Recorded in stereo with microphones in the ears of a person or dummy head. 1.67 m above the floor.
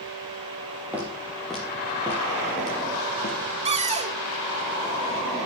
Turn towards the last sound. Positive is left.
turn(degrees=-30)  # may be behind; listen again after turning